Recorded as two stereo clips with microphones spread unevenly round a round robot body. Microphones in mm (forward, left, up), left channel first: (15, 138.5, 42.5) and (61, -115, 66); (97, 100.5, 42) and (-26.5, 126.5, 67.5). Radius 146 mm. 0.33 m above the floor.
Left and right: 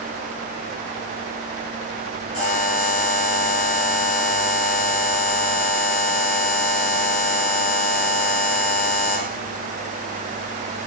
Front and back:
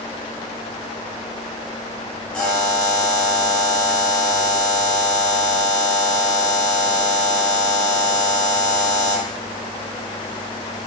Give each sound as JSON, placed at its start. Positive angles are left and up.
{"t": 2.3, "sound": "a buzzer", "azimuth_deg": 70, "distance_m": 6.5}